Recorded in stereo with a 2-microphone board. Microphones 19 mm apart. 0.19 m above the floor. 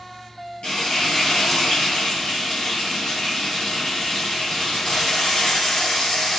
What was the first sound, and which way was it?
Frying, 55° left (ahead or behind).